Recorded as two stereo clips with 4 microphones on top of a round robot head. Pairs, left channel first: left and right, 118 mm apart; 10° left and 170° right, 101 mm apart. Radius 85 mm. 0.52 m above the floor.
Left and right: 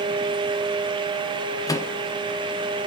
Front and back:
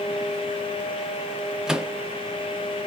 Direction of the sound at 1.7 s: 115° left.